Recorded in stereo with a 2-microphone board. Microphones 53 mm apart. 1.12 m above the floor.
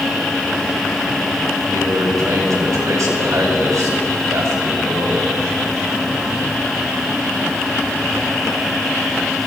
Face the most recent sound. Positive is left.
turn(degrees=-65)  # may be behind; listen again after turning